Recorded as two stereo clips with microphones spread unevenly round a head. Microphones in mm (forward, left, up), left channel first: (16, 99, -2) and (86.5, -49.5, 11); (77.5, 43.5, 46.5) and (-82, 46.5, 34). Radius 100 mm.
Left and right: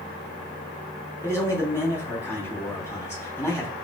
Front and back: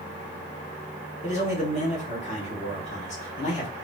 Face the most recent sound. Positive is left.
turn(degrees=45)